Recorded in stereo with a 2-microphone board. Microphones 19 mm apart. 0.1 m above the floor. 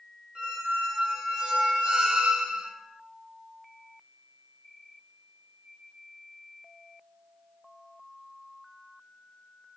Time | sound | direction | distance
0.3 | a squeak | 75° right (ahead or behind) | 1.2 m